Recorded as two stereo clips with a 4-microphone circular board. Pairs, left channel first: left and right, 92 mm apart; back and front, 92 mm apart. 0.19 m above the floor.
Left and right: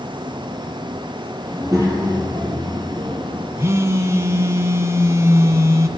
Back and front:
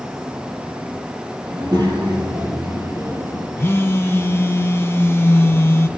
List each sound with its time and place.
1.5 s a child speaking: 40° right, 5 m; by 3.5 s 65° right, 5 m
3.6 s a phone buzzing: 135° right, 1.1 m